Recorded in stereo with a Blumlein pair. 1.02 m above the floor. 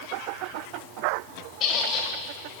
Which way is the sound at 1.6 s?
25° left.